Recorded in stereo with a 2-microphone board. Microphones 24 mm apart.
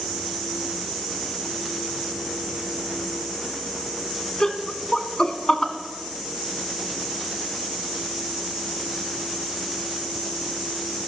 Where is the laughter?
30° left (ahead or behind), 1.2 m.